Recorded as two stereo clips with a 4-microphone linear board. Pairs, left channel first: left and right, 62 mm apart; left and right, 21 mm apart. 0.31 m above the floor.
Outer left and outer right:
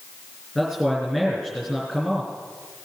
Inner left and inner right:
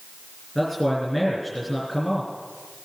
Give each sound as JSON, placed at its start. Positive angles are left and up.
{"t": 0.6, "sound": "a man speaking", "side_deg": 5, "distance_m": 4.5}